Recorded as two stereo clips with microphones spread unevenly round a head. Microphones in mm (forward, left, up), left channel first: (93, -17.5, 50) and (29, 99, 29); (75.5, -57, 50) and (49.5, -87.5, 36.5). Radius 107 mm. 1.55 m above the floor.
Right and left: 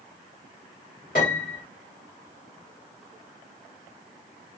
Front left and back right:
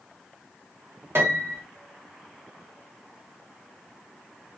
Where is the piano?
105° right, 1.4 m.